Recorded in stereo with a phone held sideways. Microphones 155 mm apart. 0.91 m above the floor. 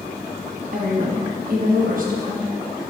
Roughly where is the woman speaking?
Right.